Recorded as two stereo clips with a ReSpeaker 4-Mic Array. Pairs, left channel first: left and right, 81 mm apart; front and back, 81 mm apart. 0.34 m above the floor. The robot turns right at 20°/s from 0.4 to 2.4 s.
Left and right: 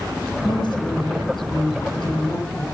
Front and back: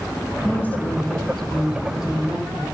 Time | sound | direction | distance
0.4 | a woman speaking | 70° left | 7.5 m